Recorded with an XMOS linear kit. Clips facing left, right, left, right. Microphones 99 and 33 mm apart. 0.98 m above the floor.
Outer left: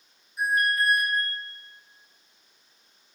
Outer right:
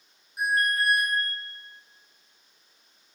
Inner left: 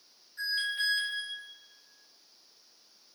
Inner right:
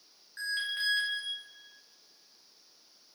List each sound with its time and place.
0.4 s an alarm: 65° right (ahead or behind), 2.5 m